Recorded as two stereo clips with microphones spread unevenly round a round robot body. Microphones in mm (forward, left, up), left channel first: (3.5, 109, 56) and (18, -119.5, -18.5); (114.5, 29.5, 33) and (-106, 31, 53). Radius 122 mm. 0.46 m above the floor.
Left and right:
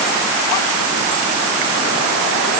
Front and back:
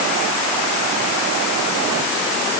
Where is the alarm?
I don't hear an alarm.